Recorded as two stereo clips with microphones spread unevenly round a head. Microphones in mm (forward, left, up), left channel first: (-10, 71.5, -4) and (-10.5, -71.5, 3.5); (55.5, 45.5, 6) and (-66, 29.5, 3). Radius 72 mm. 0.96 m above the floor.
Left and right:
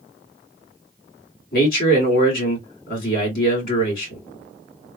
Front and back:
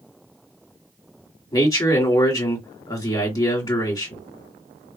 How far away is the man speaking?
About 1.9 m.